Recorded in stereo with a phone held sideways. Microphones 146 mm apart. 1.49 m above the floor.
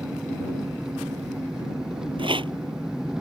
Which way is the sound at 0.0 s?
5° right (ahead or behind).